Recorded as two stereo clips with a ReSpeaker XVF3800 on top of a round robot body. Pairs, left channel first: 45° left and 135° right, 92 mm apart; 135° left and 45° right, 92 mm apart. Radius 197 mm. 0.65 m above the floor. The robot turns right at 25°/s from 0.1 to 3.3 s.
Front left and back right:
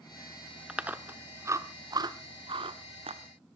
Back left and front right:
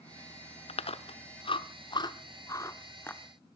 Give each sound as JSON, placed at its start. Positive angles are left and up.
{"t": 0.7, "sound": "chewing", "azimuth_deg": 145, "distance_m": 0.9}